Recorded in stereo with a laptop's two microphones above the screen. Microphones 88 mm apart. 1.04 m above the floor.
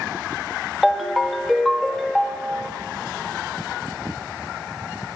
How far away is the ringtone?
About 0.8 m.